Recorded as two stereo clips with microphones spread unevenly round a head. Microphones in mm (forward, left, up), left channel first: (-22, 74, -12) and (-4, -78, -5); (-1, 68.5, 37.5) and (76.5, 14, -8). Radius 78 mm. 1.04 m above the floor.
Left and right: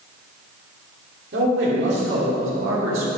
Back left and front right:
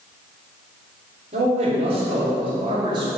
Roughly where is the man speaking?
Ahead right.